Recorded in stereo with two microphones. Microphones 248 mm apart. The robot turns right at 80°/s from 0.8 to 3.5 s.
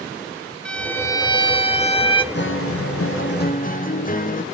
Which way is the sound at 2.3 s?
50° left.